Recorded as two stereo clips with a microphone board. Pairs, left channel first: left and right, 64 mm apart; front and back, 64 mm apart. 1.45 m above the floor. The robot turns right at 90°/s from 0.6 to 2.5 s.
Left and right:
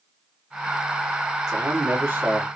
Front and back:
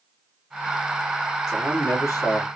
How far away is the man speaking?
About 1.2 m.